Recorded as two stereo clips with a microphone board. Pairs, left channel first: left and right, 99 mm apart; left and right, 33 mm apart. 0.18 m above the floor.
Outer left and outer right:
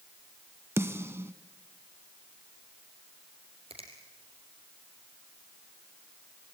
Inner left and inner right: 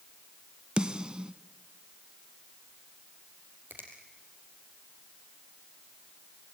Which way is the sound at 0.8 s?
25° right (ahead or behind).